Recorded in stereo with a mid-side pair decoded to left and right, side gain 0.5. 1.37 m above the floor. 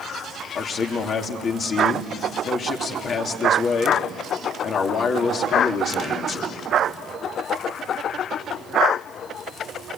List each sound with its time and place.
0.6 s a man speaking: 50° left, 3 m